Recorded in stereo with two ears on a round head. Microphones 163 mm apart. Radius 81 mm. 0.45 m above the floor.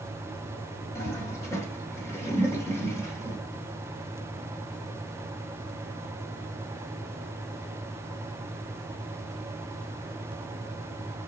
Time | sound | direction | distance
0.9 | a toilet flushing | 20° left (ahead or behind) | 1.7 m